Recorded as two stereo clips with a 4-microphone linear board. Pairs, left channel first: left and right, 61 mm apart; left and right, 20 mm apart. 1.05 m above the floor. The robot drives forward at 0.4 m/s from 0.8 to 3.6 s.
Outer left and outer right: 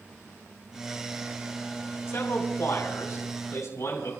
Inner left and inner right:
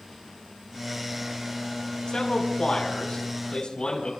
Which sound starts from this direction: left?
A man speaking, at 2.1 s.